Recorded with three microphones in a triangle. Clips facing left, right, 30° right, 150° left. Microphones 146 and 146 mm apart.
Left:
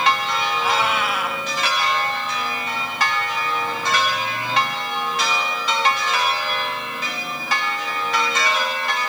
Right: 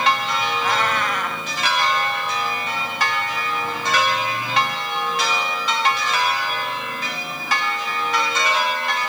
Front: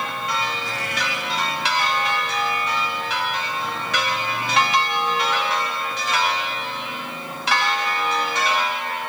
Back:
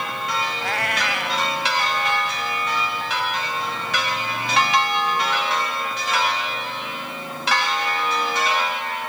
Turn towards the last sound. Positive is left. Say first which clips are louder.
# left 2 dB, back 3 dB
turn(degrees=170)